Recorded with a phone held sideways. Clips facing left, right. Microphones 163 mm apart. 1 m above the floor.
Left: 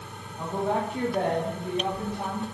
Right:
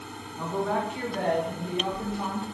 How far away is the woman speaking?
About 0.8 m.